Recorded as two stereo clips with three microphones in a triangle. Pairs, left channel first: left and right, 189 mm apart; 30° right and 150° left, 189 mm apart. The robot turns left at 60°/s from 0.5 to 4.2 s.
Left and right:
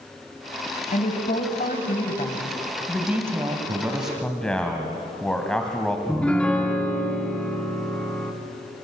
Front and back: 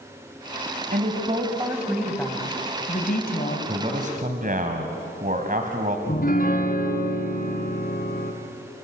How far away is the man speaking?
About 2 m.